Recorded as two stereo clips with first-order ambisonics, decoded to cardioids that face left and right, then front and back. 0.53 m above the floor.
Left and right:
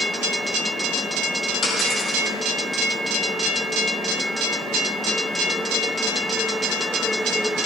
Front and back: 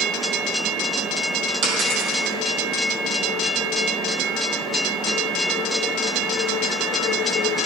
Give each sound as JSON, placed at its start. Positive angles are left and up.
{"t": 1.6, "sound": "a dropped coin", "azimuth_deg": 160, "distance_m": 4.5}